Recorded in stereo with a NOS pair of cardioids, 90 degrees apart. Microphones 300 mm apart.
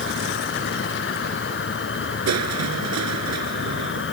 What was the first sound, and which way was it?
An insect, 40° left.